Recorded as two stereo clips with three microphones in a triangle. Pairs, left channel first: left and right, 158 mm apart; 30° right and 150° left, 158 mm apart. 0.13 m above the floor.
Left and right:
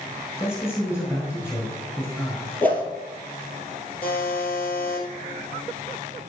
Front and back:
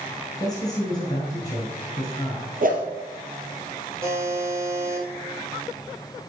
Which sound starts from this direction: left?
A buzzer, at 4.0 s.